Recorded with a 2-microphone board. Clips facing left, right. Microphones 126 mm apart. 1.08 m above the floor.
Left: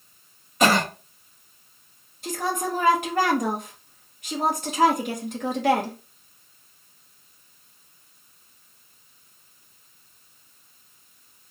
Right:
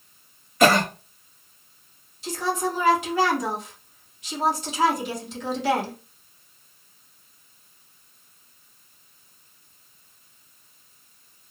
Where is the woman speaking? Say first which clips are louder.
Right 1 dB; 55° left (ahead or behind), 1.1 m.